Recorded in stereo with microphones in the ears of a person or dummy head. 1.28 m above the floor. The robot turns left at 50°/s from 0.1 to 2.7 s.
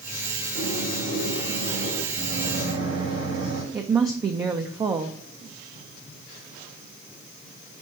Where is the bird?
120° left, 1.8 m; by 2.0 s 45° left, 1.8 m.